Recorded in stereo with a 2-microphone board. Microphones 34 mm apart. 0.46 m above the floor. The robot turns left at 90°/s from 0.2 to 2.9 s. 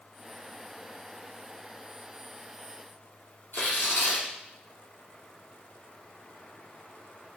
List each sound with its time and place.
3.5 s tearing paper: 70° left (ahead or behind), 5 m